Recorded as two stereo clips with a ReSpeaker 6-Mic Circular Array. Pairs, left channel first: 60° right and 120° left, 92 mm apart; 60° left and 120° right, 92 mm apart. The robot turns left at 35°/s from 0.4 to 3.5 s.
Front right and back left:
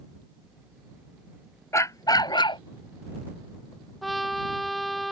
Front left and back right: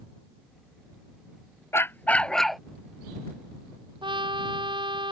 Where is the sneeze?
I don't hear a sneeze.